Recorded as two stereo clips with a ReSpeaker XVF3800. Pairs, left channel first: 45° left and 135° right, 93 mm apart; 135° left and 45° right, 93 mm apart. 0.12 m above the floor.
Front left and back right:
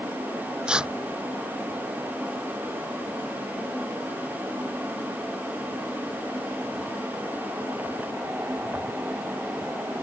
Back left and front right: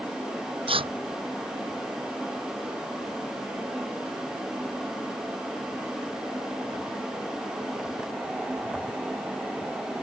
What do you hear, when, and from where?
0.7 s tearing paper: 55° right